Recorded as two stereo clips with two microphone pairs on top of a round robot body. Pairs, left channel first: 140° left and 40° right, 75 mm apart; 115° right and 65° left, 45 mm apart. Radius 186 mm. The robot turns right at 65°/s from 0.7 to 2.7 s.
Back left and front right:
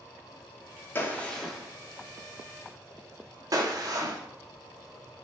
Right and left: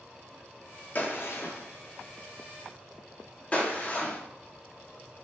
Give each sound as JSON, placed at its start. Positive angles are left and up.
{"t": 0.9, "sound": "a gunshot", "azimuth_deg": -165, "distance_m": 0.7}